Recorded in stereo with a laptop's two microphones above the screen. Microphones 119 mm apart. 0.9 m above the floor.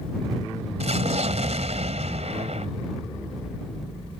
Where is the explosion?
70° right (ahead or behind).